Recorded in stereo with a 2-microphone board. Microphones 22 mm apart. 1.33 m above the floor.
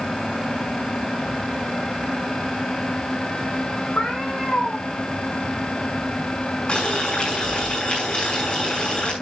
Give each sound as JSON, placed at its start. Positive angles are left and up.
{"t": 4.0, "sound": "a cat meowing", "side_deg": 75, "distance_m": 5.5}
{"t": 6.7, "sound": "boiling", "side_deg": 50, "distance_m": 6.0}